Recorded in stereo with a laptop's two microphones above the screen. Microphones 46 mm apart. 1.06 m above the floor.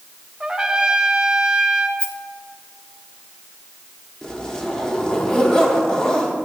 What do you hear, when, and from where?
0.4 s a trumpet: 15° right (ahead or behind), 0.6 m
2.0 s a rattle: 55° left (ahead or behind), 1.0 m
4.2 s a zipper: 15° left (ahead or behind), 1.1 m